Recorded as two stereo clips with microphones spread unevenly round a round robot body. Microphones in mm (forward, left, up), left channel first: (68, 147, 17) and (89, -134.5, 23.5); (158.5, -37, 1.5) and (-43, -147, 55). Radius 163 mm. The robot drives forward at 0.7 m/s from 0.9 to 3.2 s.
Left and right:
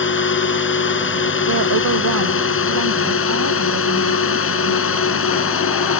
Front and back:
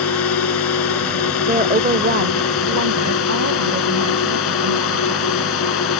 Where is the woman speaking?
90° right; by 5.4 s 130° right.